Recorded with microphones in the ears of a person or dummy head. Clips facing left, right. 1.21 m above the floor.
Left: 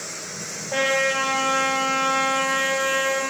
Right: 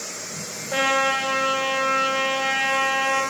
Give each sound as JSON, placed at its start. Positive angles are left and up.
{"t": 0.7, "sound": "a trumpet", "side_deg": 0, "distance_m": 3.5}